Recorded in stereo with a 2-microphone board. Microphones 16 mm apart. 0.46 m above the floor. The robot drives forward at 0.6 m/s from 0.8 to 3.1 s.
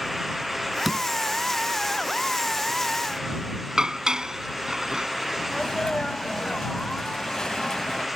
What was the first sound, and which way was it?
A door slam, 15° right (ahead or behind).